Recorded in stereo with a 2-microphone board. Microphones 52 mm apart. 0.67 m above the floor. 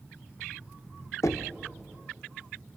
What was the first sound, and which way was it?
Knocking, 75° left (ahead or behind).